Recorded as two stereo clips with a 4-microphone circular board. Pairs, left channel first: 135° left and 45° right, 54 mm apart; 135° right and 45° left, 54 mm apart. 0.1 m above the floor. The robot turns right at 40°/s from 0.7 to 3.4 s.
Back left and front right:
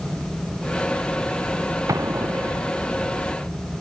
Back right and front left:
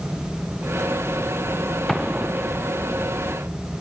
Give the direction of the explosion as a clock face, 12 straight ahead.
2 o'clock.